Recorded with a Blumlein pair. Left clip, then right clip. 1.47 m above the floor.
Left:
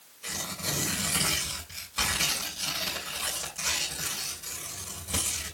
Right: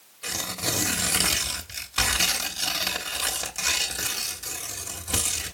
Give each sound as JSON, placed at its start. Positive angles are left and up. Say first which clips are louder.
{"t": 0.2, "sound": "tearing paper", "louder": "right 4 dB", "azimuth_deg": -65, "distance_m": 3.0}